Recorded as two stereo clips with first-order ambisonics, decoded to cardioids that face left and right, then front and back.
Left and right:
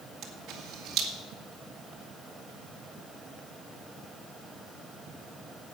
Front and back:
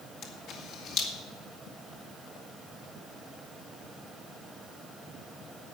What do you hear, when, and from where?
0.2 s a camera shutter: 45° right, 2 m